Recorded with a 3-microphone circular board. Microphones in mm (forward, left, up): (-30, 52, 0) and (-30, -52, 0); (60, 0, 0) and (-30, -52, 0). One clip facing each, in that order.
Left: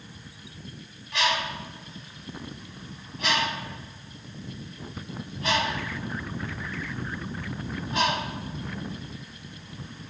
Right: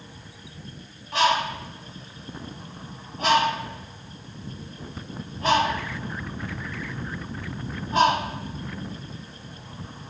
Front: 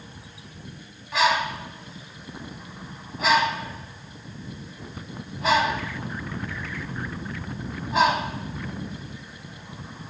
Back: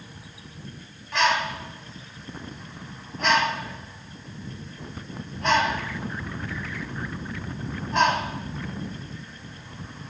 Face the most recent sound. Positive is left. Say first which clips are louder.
# right 6 dB, front 1 dB
turn(degrees=-55)